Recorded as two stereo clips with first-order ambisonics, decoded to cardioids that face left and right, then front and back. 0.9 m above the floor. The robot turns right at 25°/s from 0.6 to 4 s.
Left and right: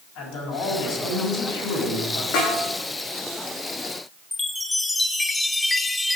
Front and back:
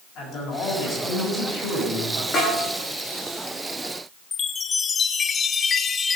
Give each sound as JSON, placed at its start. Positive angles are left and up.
{"t": 0.1, "sound": "a man speaking", "azimuth_deg": 55, "distance_m": 7.5}
{"t": 2.3, "sound": "a snare drum", "azimuth_deg": 65, "distance_m": 8.0}
{"t": 4.3, "sound": "a chime", "azimuth_deg": 20, "distance_m": 0.7}